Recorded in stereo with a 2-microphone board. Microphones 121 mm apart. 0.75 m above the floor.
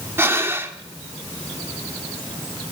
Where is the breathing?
20° right (ahead or behind), 0.9 m.